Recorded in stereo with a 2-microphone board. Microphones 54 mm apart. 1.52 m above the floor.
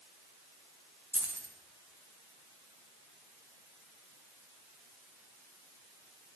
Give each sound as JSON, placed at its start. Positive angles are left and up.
{"t": 1.1, "sound": "keys jangling", "side_deg": -35, "distance_m": 1.0}